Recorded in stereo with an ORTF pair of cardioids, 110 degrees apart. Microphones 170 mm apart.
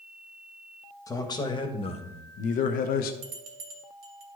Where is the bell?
70° right, 2.5 m.